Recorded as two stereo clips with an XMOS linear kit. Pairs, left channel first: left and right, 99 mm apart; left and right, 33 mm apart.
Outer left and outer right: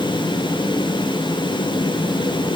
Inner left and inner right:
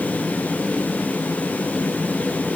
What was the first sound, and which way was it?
Only background noise.